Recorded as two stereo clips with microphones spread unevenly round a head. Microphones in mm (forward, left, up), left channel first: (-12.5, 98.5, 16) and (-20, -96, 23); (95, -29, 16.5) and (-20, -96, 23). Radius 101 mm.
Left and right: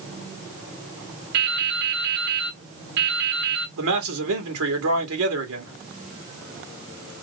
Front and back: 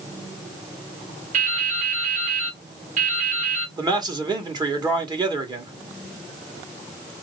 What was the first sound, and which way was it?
Dripping, 130° right.